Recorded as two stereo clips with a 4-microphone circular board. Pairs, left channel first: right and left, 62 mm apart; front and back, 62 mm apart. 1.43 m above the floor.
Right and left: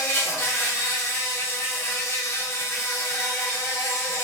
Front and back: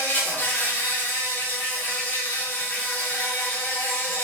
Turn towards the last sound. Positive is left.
turn(degrees=-55)